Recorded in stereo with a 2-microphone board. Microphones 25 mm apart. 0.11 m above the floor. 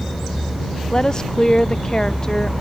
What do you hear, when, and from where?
0.9 s a woman speaking: 30° left (ahead or behind)